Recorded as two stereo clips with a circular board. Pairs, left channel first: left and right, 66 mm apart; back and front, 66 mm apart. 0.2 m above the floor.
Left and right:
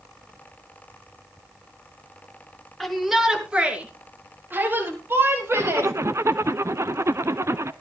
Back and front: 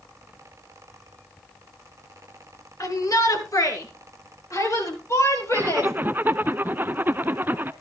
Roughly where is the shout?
Behind.